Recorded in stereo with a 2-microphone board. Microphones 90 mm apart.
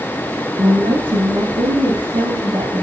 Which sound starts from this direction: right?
A woman speaking, at 0.6 s.